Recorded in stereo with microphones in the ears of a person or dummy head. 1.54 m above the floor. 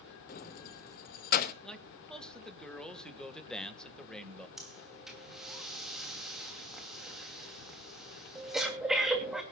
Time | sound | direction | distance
0.3 | keys jangling | 50° left (ahead or behind) | 1.2 m
1.6 | a man speaking | 5° left (ahead or behind) | 1.7 m
4.6 | breathing | 5° right (ahead or behind) | 3 m